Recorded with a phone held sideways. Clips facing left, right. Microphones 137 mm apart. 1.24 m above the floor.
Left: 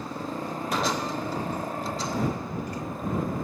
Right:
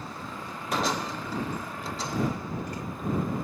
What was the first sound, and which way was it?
A motorcycle, 45° left (ahead or behind).